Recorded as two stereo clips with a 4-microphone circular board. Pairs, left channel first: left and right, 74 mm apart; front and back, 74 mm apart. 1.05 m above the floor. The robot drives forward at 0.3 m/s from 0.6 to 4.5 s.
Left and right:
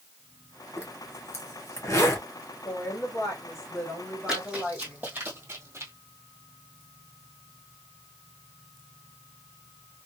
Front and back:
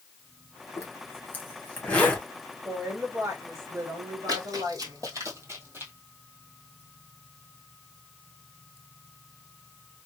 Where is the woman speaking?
130° left, 1.6 m; by 5.0 s 145° left, 2.0 m.